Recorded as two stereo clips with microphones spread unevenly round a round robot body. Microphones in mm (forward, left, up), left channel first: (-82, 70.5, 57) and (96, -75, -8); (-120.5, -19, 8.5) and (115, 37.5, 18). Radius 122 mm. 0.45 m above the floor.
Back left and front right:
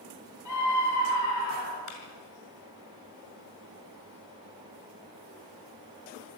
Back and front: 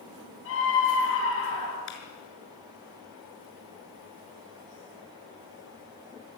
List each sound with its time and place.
0.5 s a scream: 155° left, 9 m
1.9 s a clap: 150° left, 6 m